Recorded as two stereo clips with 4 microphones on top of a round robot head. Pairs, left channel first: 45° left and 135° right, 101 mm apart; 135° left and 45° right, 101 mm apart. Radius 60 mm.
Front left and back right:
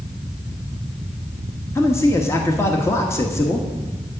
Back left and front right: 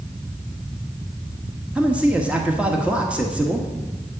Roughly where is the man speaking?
Ahead.